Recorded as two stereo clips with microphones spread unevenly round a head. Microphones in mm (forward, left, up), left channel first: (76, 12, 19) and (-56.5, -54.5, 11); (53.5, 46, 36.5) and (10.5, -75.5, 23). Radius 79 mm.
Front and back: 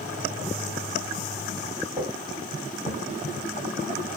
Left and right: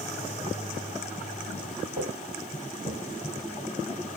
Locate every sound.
2.0 s footsteps: 80° right, 2.5 m; by 3.0 s 55° right, 2.5 m